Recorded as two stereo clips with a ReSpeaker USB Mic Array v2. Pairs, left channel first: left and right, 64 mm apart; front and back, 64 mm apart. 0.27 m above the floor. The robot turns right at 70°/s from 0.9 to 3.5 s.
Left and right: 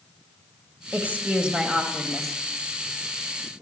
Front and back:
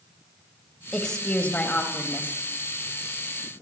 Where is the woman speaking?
75° right, 1.0 m; by 2.4 s 30° left, 1.0 m.